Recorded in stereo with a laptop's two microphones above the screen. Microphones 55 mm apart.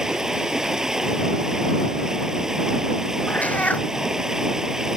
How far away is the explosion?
No explosion in this recording.